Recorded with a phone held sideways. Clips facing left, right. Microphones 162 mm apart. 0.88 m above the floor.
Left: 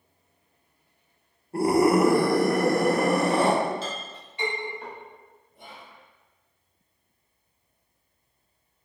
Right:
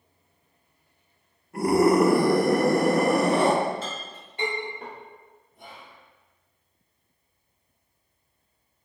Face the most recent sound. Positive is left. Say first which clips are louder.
# even
turn(degrees=0)  # may be behind; listen again after turning